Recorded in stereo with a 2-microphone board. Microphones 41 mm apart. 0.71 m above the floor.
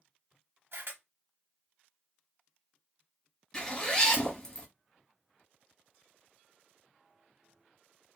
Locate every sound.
0.7 s a camera shutter: 60° right (ahead or behind), 0.8 m
3.5 s a zipper: 15° left (ahead or behind), 1.4 m